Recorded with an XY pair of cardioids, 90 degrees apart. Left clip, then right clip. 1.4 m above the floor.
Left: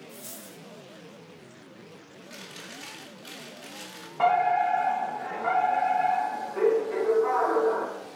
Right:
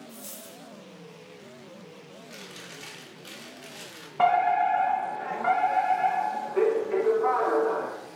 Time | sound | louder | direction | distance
0.1 | a dropped coin | even | 20° right | 4 m
2.3 | chewing | left 1 dB | 5° right | 2.5 m
4.2 | a fire alarm | right 1 dB | 45° right | 3 m